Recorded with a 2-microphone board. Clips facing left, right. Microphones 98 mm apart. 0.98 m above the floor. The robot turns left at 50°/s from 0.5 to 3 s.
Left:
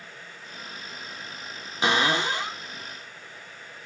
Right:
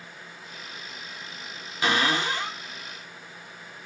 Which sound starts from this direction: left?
A cupboard door, at 1.8 s.